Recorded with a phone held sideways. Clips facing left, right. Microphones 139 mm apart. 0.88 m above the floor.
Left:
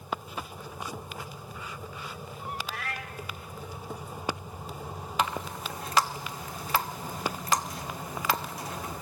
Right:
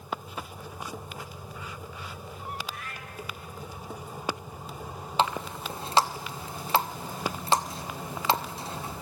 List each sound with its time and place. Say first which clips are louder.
2.7 s a cat meowing: left 3 dB; 85° left, 1.3 m
5.2 s a running tap: right 3 dB; 30° right (ahead or behind), 0.9 m